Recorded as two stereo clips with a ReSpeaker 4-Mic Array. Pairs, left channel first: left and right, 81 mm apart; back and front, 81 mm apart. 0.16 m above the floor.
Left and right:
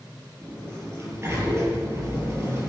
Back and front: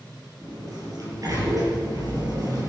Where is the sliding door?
35° right, 4.5 m.